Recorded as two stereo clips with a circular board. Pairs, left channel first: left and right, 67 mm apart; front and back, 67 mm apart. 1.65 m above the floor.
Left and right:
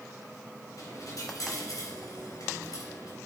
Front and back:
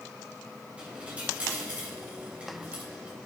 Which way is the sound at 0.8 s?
110° left.